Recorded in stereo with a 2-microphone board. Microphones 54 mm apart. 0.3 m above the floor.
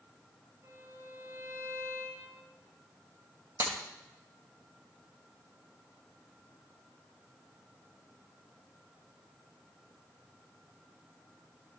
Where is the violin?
80° right, 6 m.